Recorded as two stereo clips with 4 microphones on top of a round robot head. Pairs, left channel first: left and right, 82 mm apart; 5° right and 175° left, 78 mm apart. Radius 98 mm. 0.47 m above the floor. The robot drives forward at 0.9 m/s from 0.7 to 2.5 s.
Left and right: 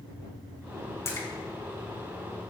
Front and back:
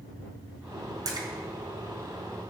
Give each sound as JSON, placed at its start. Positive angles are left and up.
{"t": 1.1, "sound": "a splash", "azimuth_deg": 145, "distance_m": 4.5}